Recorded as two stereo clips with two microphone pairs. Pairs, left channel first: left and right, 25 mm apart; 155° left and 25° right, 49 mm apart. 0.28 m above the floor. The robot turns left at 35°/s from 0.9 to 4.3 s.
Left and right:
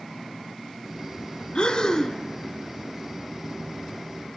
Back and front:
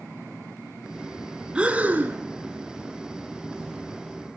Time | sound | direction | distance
1.6 | breathing | 40° left | 0.9 m